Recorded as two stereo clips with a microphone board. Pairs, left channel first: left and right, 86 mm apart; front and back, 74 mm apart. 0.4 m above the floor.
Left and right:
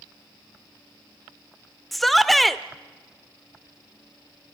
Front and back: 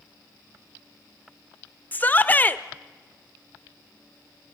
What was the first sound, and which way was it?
A shout, 5° left.